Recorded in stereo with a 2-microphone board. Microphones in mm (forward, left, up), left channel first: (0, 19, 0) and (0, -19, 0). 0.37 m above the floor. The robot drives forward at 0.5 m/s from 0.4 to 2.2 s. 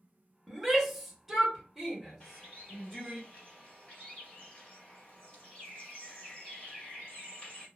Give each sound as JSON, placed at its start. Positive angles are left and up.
{"t": 0.5, "sound": "a shout", "side_deg": -5, "distance_m": 0.8}
{"t": 2.2, "sound": "a bird", "side_deg": 30, "distance_m": 1.7}